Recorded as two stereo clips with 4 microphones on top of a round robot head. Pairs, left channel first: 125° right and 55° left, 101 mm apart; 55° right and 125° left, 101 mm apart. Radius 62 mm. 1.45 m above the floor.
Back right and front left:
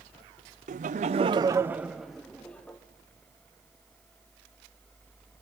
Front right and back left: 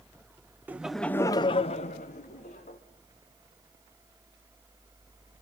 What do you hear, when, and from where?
0.7 s laughter: 55° left, 0.6 m; by 2.8 s 50° right, 1.1 m